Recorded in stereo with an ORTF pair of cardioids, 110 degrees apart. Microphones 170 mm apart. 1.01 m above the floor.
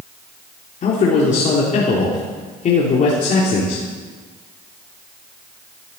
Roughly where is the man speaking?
Ahead left.